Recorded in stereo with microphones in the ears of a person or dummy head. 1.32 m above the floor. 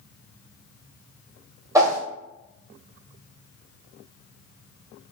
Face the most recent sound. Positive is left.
turn(degrees=-20)  # may be behind; listen again after turning